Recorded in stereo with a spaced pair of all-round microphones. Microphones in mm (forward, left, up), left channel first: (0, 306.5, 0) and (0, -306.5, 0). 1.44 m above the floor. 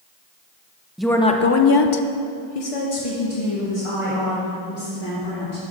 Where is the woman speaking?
Centre (ahead or behind), 0.8 m; by 5.6 s 45° left (ahead or behind), 3 m.